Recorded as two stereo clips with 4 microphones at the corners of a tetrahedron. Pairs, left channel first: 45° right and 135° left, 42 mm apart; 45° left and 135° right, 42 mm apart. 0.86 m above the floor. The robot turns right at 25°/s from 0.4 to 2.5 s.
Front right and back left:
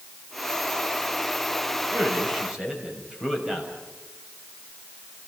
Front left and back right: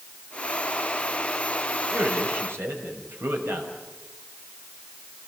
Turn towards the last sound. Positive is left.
turn(degrees=-150)